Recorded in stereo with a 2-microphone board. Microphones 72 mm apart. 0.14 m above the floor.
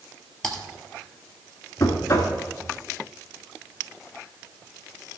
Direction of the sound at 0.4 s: 5° left (ahead or behind).